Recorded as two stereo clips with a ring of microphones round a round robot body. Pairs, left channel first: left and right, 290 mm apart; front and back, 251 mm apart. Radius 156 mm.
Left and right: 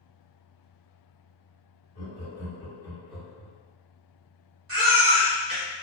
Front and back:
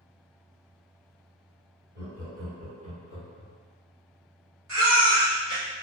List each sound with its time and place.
1.9 s laughter: 140° left, 1.7 m; by 3.5 s 140° right, 1.1 m
4.7 s a baby crying: 135° right, 1.4 m